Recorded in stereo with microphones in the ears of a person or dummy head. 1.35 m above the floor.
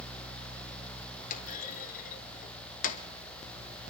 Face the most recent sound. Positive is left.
turn(degrees=45)  # may be behind; listen again after turning